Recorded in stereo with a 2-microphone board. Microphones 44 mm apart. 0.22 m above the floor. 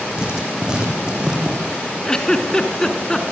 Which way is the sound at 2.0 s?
15° left (ahead or behind).